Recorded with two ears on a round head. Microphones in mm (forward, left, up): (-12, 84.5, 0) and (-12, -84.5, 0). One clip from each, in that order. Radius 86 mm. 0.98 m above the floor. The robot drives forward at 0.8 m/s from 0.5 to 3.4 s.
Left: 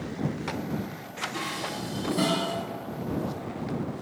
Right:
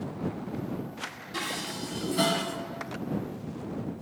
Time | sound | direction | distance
1.3 | dishes clattering | 30° right (ahead or behind) | 5.5 m